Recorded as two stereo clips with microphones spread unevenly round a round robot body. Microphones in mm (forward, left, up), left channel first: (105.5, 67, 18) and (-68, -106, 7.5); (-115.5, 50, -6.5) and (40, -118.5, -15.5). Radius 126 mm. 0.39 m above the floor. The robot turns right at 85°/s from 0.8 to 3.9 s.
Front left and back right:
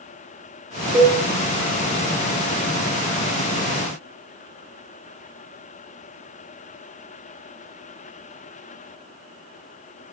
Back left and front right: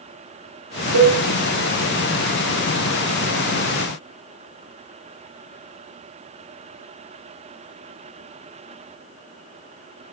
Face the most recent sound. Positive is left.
turn(degrees=-165)